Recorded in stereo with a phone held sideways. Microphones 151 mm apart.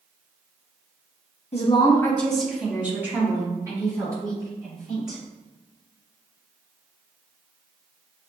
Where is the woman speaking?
45° left (ahead or behind), 0.6 m; by 5.2 s 25° right (ahead or behind), 3 m.